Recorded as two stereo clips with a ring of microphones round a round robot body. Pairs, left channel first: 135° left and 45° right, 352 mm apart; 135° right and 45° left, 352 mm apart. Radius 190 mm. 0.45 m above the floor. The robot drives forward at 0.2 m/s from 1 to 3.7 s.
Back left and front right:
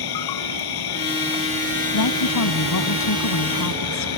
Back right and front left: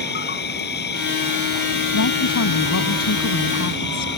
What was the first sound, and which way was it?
An insect, 160° left.